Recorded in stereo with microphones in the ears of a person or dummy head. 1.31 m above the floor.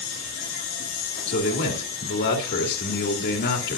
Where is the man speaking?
60° left (ahead or behind), 2.5 m.